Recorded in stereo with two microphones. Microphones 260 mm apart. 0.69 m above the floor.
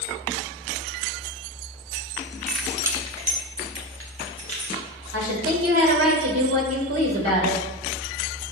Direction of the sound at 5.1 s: 65° right (ahead or behind).